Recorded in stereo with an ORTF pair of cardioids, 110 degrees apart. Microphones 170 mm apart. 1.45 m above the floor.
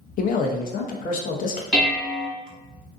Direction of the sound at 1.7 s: 5° right.